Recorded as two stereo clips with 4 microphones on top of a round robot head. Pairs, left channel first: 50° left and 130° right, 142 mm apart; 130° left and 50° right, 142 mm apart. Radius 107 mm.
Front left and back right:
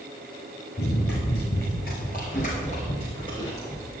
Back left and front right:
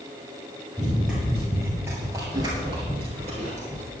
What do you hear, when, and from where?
0.8 s running footsteps: 40° left, 2.5 m; by 3.9 s 25° right, 1.9 m